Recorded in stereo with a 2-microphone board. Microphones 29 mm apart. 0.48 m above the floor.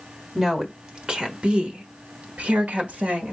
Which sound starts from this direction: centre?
A woman speaking, at 0.3 s.